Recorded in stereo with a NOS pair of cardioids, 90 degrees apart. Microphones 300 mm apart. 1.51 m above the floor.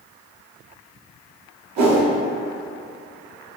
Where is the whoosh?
65° right, 1.2 m.